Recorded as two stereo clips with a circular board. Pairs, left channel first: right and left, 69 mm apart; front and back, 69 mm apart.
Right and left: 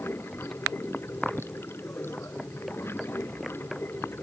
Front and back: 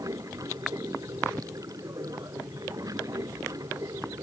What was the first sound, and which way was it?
Running water, 145° right.